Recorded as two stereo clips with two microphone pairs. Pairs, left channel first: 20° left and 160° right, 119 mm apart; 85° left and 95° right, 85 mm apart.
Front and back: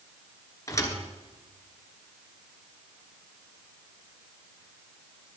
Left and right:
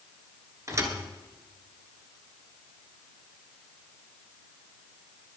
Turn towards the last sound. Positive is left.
turn(degrees=-40)